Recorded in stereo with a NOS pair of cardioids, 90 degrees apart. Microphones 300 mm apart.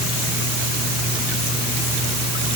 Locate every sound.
Only background noise.